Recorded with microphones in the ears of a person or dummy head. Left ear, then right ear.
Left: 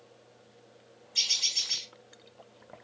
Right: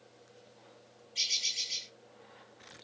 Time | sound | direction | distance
1.1 | a bird | 50° left (ahead or behind) | 1.8 m